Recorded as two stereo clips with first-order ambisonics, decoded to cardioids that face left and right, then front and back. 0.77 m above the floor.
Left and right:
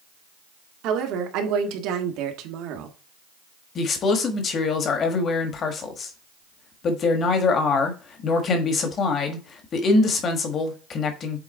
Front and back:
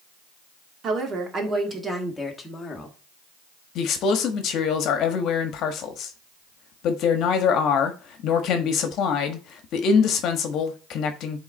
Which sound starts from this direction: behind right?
A woman speaking, at 0.8 s.